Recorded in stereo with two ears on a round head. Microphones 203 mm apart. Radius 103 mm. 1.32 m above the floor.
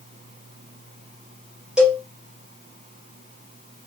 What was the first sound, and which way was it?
A cowbell, 5° right (ahead or behind).